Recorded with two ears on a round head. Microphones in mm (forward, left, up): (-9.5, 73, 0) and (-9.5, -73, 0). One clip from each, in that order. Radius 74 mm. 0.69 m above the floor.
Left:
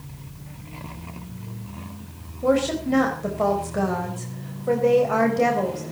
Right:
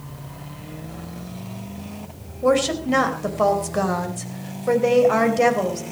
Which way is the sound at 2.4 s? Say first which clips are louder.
Right 2 dB; 40° right (ahead or behind).